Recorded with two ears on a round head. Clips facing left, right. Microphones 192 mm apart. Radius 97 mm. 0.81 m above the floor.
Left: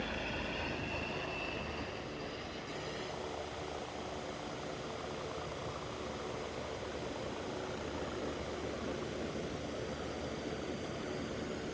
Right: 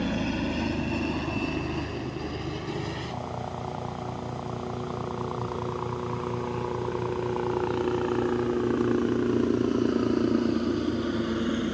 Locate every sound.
0.0 s a helicopter: 65° right (ahead or behind); by 11.7 s 85° right